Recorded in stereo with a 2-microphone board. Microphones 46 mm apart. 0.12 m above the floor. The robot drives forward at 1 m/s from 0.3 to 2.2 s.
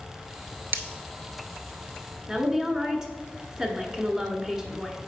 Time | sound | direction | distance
0.7 | breaking glass | 55° right (ahead or behind) | 0.6 m
2.3 | a woman speaking | 15° right (ahead or behind) | 1.1 m